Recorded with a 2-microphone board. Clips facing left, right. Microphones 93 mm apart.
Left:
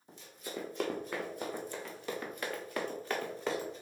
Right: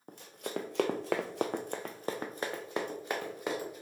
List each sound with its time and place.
0.1 s running footsteps: 55° right (ahead or behind), 0.9 m; by 3.8 s 10° right (ahead or behind), 1.5 m